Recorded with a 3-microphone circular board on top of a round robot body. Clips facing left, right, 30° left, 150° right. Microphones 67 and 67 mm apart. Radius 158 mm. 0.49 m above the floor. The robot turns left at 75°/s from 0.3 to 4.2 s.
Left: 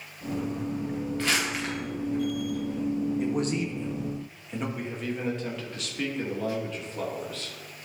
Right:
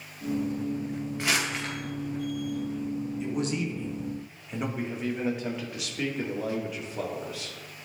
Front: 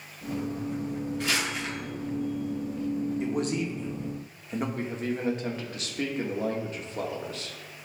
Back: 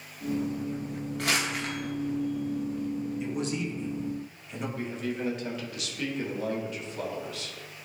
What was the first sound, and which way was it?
Crumpling, 160° right.